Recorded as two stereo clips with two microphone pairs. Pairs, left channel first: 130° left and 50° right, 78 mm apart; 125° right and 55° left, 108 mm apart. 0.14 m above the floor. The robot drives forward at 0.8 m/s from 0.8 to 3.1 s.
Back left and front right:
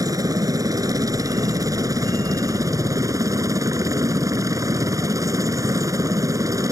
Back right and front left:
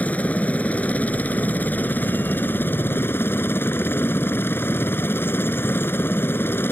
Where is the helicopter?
55° right; by 6.7 s 65° right.